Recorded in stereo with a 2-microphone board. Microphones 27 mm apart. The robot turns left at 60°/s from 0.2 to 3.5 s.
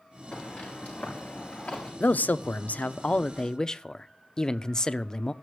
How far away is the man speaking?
About 0.5 m.